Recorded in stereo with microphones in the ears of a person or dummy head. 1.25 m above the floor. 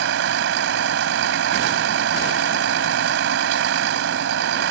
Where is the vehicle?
75° right (ahead or behind).